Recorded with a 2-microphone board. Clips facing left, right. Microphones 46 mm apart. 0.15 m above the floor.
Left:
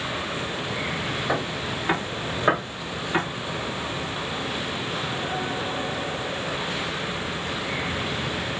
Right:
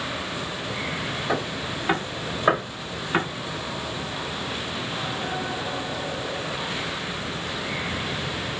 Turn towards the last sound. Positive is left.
turn(degrees=-15)  # may be behind; listen again after turning